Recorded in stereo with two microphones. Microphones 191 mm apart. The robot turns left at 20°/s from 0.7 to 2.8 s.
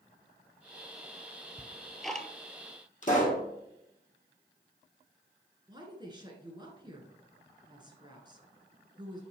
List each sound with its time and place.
1.6 s ticking: 5° right (ahead or behind), 0.5 m; by 2.3 s 5° left (ahead or behind), 0.5 m
3.0 s a pop: 40° left (ahead or behind), 2 m
5.7 s a woman speaking: 25° right (ahead or behind), 1.5 m